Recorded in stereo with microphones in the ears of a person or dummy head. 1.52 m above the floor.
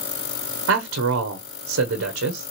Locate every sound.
0.7 s a man speaking: 65° right (ahead or behind), 1.0 m